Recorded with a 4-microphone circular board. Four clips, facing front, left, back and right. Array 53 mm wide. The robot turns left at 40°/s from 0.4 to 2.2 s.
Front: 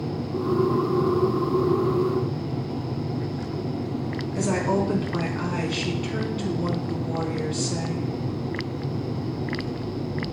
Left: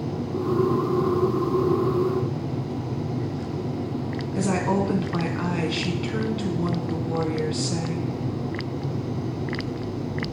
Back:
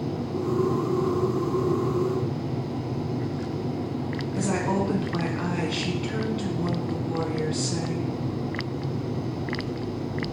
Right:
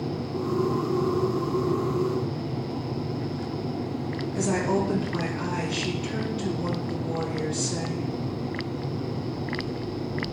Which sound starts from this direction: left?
A woman speaking, at 4.3 s.